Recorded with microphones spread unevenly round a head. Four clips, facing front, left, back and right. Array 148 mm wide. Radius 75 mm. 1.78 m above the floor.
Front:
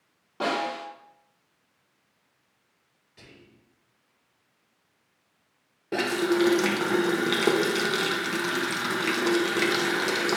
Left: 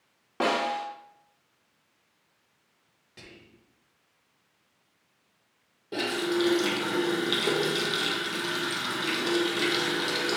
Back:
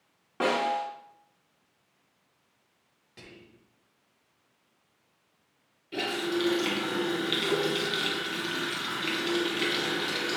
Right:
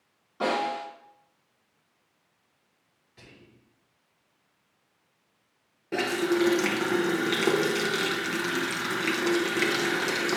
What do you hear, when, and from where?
0.4 s a snare drum: 110° left, 3.5 m
3.2 s whispering: 130° left, 4 m
5.9 s a running tap: 10° right, 1.1 m